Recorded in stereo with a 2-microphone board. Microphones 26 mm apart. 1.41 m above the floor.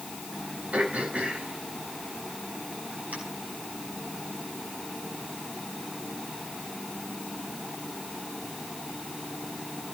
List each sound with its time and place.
0.7 s throat clearing: 85° right, 8 m